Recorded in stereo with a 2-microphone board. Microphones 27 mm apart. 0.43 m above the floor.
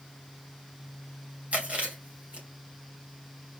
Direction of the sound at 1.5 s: 55° right (ahead or behind).